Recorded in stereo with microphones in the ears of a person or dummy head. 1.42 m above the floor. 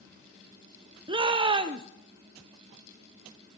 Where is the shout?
30° right (ahead or behind), 0.6 m.